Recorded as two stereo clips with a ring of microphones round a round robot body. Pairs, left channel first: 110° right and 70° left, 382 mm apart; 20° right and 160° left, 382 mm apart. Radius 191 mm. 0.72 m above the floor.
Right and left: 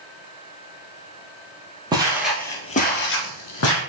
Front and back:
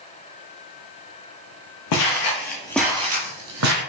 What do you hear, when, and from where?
1.9 s footsteps: 10° right, 1.0 m; by 3.8 s 165° right, 1.2 m